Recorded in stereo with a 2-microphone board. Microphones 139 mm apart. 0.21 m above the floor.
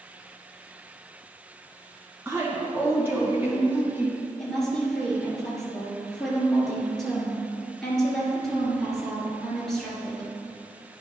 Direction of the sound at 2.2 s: 15° right (ahead or behind).